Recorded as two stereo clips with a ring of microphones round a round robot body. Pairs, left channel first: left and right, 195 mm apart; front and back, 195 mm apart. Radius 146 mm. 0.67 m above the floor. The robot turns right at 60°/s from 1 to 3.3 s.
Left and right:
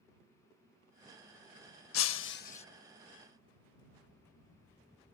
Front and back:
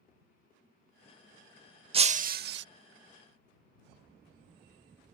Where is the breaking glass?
120° left; by 2.6 s 160° left.